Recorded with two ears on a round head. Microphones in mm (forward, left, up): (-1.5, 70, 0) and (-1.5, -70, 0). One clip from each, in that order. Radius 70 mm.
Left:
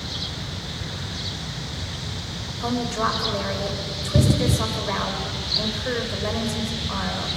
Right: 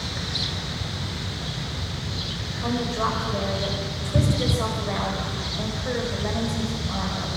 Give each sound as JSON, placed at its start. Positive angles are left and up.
{"t": 2.6, "sound": "a woman speaking", "side_deg": 70, "distance_m": 4.5}